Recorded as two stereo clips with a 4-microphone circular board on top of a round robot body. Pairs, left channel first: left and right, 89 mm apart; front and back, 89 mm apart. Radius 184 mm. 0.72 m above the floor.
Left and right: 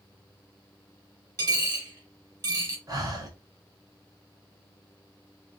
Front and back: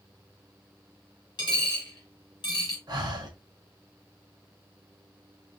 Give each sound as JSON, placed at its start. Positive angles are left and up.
{"t": 1.4, "sound": "a dropped coin", "azimuth_deg": -35, "distance_m": 1.3}
{"t": 2.9, "sound": "breathing", "azimuth_deg": -140, "distance_m": 1.0}